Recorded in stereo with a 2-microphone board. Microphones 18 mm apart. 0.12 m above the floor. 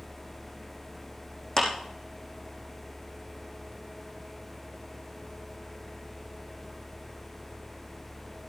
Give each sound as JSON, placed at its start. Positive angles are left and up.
{"t": 1.6, "sound": "a clap", "side_deg": 30, "distance_m": 4.5}